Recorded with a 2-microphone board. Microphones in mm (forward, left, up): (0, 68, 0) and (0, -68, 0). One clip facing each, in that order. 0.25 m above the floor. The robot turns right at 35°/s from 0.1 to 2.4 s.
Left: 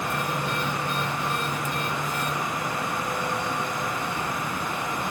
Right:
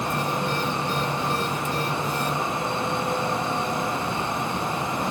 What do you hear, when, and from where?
Only background noise.